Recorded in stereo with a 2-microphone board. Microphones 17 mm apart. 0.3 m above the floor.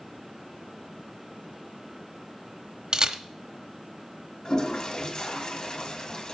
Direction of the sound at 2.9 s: 40° right (ahead or behind).